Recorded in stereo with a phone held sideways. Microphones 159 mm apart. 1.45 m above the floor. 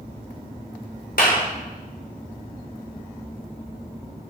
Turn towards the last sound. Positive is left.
turn(degrees=70)  # may be behind; listen again after turning